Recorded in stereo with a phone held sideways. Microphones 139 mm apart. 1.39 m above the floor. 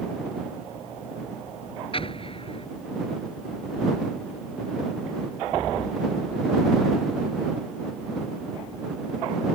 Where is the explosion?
40° left (ahead or behind).